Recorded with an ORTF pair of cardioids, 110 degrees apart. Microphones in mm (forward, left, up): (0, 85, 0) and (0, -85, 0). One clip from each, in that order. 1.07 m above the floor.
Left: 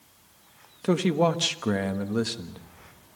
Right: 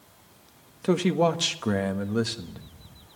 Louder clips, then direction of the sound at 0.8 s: Even; 5° right.